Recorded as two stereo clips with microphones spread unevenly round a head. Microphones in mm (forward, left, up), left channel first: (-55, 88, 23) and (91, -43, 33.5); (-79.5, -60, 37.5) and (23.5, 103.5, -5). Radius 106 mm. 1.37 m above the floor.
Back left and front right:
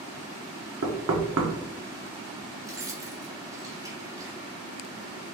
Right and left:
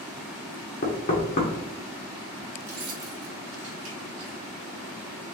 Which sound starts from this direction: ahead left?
Keys jangling, at 2.6 s.